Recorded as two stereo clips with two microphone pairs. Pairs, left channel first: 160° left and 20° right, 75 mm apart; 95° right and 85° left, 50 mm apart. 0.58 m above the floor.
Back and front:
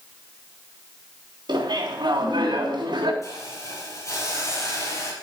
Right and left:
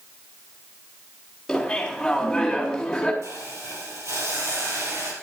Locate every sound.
1.5 s laughter: 10° right, 3.5 m
3.2 s a hiss: 110° left, 3.5 m